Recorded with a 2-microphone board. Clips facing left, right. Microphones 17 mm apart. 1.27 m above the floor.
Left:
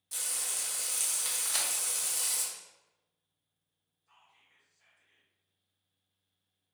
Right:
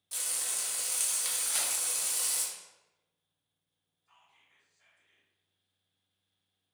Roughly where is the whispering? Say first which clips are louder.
Even; centre.